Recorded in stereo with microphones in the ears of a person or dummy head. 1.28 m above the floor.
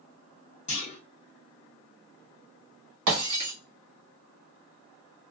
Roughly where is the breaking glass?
Right.